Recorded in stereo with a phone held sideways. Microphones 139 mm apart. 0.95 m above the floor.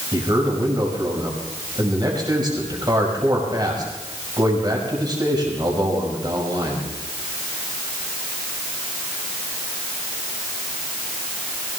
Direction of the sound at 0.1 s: 30° right (ahead or behind).